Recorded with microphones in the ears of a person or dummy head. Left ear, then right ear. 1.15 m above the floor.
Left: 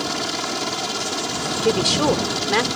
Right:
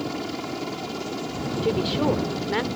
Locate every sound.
0.0 s a helicopter: 50° left (ahead or behind)
1.6 s a woman speaking: 85° left